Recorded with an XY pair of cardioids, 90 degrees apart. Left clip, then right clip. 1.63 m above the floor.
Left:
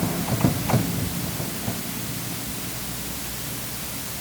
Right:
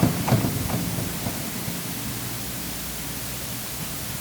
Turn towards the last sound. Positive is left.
No sound to turn to.